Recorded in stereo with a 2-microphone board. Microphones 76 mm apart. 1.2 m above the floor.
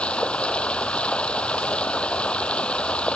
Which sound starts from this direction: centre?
Running water, at 0.0 s.